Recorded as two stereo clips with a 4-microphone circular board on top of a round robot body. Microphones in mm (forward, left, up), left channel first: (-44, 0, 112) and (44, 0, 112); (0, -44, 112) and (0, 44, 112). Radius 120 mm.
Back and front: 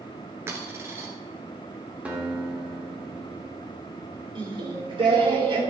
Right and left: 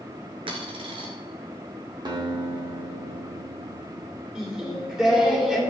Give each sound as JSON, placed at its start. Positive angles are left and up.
{"t": 0.5, "sound": "a dropped coin", "azimuth_deg": 65, "distance_m": 1.5}
{"t": 2.0, "sound": "a guitar", "azimuth_deg": 70, "distance_m": 2.0}
{"t": 4.3, "sound": "singing", "azimuth_deg": 10, "distance_m": 2.5}